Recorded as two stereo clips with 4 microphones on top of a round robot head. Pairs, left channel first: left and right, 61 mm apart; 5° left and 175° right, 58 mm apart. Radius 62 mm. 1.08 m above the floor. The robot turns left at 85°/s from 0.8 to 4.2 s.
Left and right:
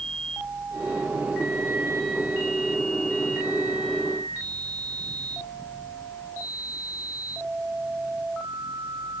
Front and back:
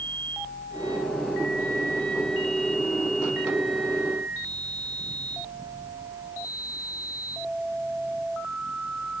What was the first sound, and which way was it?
Only background noise.